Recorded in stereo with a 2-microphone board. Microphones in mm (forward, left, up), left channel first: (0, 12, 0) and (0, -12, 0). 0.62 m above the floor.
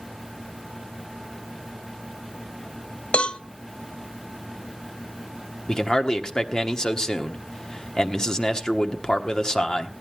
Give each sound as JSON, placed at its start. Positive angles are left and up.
{"t": 3.1, "sound": "a cowbell", "side_deg": 55, "distance_m": 0.8}
{"t": 5.7, "sound": "a man speaking", "side_deg": 30, "distance_m": 1.2}